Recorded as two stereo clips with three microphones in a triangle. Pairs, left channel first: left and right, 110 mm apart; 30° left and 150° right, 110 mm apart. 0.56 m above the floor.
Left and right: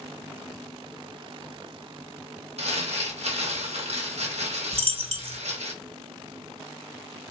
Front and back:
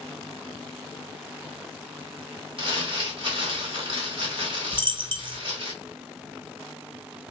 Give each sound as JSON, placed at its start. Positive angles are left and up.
{"t": 2.6, "sound": "crumpling", "azimuth_deg": -115, "distance_m": 1.1}
{"t": 4.7, "sound": "a dropped coin", "azimuth_deg": -110, "distance_m": 0.5}